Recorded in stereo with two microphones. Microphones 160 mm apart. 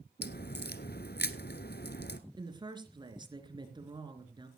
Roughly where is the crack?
Left.